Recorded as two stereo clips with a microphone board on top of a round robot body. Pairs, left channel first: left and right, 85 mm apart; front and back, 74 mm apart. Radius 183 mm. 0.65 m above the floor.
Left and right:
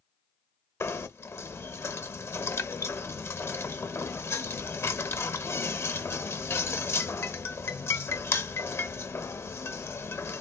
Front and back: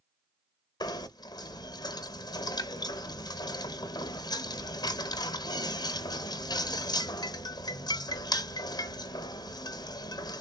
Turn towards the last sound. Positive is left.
turn(degrees=30)